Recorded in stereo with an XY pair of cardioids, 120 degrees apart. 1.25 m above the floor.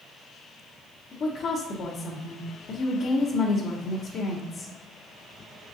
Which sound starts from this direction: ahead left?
A woman speaking, at 1.1 s.